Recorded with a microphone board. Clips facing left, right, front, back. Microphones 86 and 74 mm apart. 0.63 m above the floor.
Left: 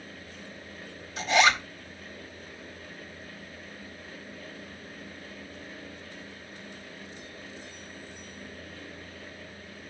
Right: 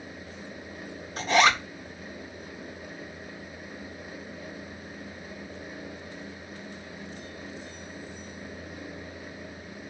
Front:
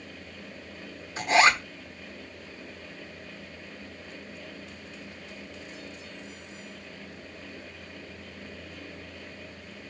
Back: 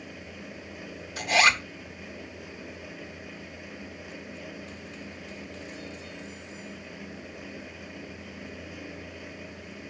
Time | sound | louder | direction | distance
1.2 | a zipper | right 1 dB, front 2 dB | 55° right | 1.5 m